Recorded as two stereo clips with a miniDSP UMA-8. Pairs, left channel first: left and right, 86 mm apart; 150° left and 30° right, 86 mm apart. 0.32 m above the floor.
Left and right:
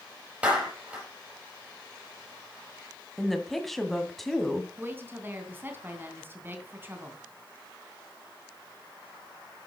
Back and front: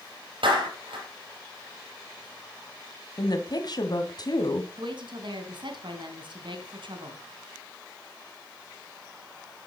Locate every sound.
0.4 s a clap: 15° right, 7.5 m
3.2 s a woman speaking: straight behind, 2 m
4.8 s a woman speaking: 25° right, 3 m